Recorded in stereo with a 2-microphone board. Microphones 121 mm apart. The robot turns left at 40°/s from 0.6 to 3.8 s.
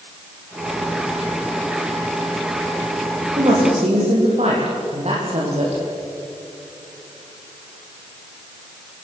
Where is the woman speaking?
45° right (ahead or behind), 8.5 m; by 5.8 s 60° right (ahead or behind), 8.5 m.